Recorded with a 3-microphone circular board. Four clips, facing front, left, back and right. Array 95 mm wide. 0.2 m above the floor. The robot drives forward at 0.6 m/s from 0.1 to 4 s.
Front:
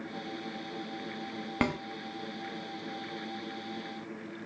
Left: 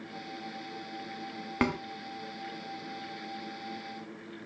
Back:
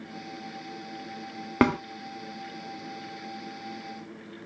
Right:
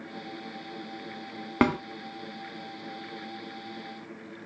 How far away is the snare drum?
About 0.5 m.